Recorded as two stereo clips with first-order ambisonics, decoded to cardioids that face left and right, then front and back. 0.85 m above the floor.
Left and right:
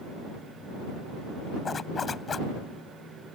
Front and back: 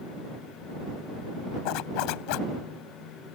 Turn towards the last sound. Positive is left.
turn(degrees=20)